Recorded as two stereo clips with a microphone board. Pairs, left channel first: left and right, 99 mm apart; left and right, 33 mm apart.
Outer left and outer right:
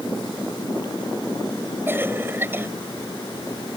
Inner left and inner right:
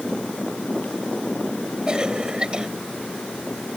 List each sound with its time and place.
1.9 s a cough: 25° right (ahead or behind)